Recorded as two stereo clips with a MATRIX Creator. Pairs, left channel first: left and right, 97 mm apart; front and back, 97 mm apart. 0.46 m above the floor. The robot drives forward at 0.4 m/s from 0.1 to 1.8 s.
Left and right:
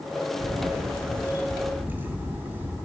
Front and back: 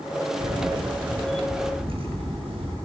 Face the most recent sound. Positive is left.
turn(degrees=-160)